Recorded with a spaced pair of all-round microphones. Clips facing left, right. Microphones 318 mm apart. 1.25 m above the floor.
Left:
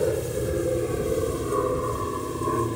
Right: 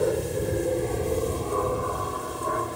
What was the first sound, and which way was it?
An aircraft, centre (ahead or behind).